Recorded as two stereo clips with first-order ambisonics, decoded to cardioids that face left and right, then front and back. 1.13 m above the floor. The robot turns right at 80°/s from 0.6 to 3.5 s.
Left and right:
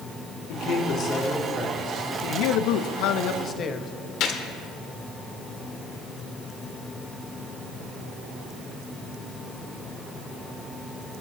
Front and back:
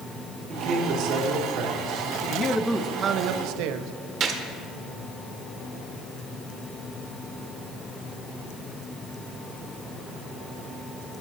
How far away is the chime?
I don't hear a chime.